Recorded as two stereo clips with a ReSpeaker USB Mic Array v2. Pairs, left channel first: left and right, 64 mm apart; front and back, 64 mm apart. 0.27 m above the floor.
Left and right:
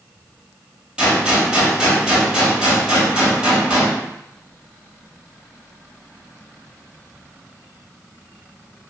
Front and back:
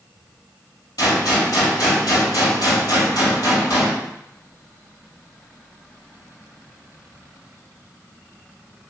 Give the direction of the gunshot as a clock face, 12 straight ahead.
12 o'clock.